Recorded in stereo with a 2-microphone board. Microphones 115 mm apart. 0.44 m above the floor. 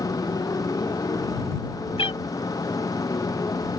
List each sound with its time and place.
0.0 s a motorcycle: 30° left (ahead or behind)
2.0 s a cat meowing: 55° left (ahead or behind)